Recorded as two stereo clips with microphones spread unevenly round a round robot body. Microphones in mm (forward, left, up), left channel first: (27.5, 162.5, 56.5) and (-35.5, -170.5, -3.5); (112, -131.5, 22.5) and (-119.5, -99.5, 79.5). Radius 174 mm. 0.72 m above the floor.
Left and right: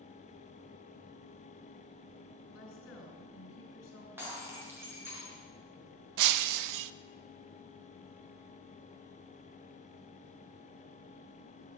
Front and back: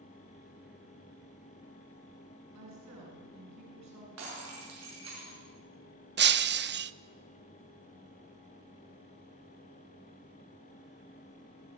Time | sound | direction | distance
2.5 | a woman speaking | 135° left | 5.5 m
4.2 | breaking glass | 175° left | 6 m
6.2 | breaking glass | 135° right | 0.6 m